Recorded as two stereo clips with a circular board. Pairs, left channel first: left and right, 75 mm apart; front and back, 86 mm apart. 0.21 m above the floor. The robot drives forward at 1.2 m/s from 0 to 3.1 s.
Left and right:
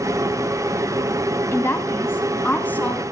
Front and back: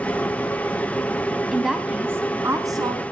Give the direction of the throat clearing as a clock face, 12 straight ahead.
No throat clearing in this recording.